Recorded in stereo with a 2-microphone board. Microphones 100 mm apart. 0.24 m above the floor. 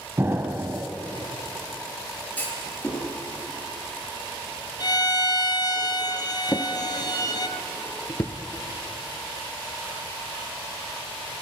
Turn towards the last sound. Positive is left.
turn(degrees=40)  # may be behind; listen again after turning